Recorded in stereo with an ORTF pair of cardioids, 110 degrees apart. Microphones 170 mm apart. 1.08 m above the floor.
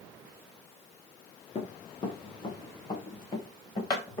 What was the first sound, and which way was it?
Running footsteps, 30° left.